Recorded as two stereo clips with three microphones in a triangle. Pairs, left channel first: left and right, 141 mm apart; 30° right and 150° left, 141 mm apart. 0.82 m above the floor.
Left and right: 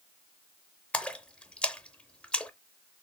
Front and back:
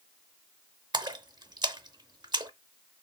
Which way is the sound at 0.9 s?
165° left.